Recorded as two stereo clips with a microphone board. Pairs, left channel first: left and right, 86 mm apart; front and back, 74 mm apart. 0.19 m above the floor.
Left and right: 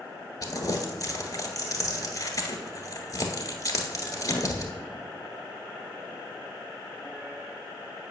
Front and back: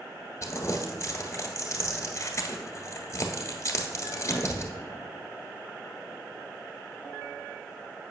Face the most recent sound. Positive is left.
turn(degrees=45)